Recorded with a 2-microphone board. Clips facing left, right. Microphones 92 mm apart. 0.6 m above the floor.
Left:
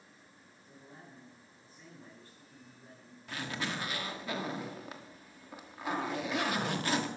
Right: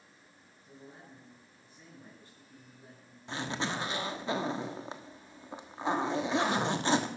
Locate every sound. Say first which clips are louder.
0.6 s a man speaking: right 3 dB; 20° right (ahead or behind), 8.5 m
3.3 s a zipper: right 3 dB; 30° right (ahead or behind), 1.3 m